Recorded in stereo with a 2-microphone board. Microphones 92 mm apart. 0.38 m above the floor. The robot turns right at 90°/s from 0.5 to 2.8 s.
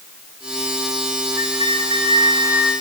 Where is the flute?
140° right, 2.5 m; by 2.7 s 20° right, 2.5 m.